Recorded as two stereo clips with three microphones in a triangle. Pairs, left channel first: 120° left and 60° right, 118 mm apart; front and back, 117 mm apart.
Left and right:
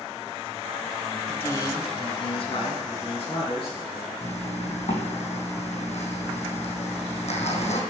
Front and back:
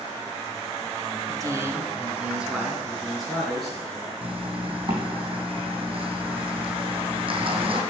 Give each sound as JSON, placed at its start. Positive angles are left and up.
{"t": 1.3, "sound": "a man speaking", "azimuth_deg": -175, "distance_m": 1.0}
{"t": 4.2, "sound": "a zipper", "azimuth_deg": 140, "distance_m": 3.0}